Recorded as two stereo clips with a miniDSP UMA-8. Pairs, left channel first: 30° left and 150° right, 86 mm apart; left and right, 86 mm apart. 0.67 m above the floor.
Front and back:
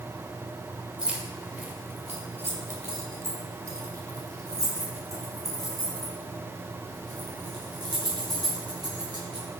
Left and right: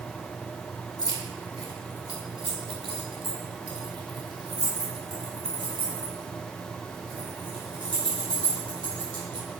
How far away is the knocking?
No knocking in this recording.